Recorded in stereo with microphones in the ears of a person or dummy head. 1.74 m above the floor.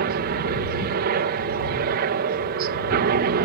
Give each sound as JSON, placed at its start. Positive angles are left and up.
{"t": 0.0, "sound": "a helicopter", "side_deg": -50}